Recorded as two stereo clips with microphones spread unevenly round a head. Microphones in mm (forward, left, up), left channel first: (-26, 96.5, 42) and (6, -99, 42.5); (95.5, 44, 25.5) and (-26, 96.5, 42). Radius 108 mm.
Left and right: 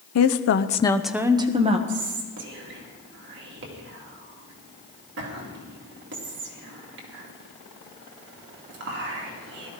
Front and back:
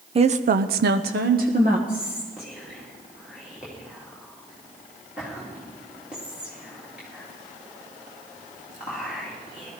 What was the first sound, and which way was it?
A woman speaking, 110° left.